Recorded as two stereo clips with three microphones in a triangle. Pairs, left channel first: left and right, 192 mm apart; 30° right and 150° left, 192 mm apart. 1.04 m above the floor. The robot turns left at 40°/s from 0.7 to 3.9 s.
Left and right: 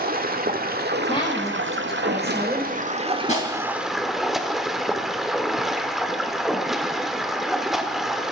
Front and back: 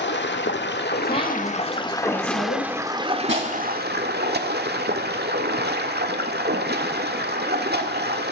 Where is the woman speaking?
30° left, 7 m; by 2.7 s 35° right, 7 m.